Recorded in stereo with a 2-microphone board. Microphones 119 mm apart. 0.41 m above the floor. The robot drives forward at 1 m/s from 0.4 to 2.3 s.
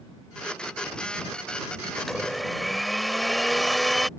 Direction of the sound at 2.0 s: Centre (ahead or behind).